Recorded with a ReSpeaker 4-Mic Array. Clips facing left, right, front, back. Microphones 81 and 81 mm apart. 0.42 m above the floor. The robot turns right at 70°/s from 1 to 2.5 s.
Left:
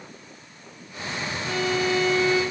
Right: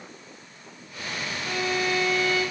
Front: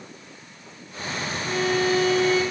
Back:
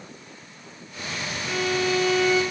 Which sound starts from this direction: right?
A violin, at 1.4 s.